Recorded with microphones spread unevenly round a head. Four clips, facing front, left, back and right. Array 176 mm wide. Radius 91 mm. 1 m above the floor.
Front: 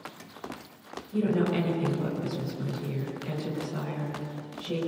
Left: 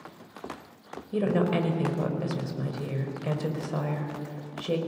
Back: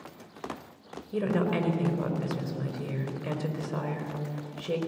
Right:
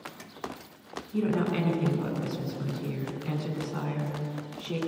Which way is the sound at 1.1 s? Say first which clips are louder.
Left 2 dB, front 1 dB; 110° left.